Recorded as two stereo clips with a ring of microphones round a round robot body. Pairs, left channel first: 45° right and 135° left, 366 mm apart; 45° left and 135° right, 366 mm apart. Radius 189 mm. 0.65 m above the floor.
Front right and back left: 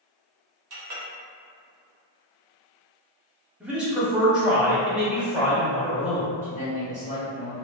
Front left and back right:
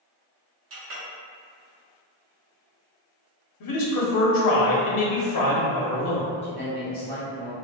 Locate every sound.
0.7 s a clink: 175° left, 0.7 m
3.6 s a man speaking: 50° left, 0.8 m
6.4 s a man speaking: 155° right, 1.8 m